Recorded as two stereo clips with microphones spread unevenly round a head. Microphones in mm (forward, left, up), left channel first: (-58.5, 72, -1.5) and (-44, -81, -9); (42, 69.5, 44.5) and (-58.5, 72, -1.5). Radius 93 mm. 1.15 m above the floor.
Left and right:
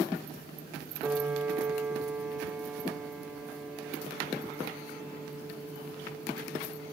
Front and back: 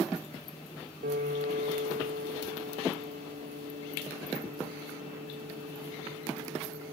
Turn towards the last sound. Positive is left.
turn(degrees=-165)